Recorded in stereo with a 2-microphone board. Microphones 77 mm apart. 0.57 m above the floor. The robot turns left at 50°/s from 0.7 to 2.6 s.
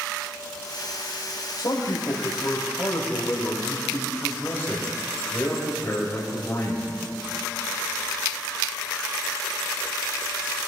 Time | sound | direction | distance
1.6 | a man speaking | 80° left | 2.5 m